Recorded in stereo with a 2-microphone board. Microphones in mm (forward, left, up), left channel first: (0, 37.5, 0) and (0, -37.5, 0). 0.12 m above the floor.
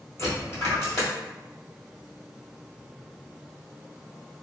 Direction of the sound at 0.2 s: 40° left (ahead or behind).